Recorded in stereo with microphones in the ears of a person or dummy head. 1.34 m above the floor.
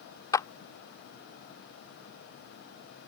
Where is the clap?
15° left (ahead or behind).